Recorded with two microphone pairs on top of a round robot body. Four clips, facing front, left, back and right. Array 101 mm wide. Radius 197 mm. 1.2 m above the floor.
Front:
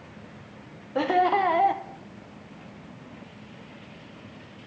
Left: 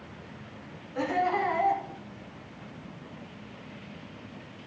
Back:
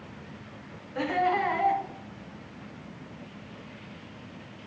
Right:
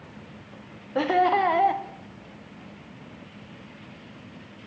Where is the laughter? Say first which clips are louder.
Right 6 dB, front 4 dB; 45° right, 1.0 m.